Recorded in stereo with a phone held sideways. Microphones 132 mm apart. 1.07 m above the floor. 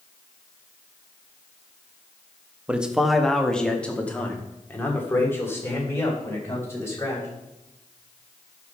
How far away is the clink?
I don't hear a clink.